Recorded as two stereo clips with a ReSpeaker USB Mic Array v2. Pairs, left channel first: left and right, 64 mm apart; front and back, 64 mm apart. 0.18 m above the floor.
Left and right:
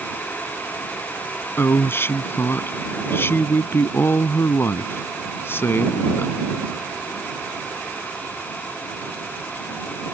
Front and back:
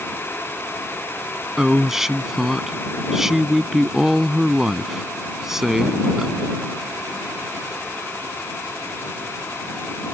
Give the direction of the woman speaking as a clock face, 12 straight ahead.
9 o'clock.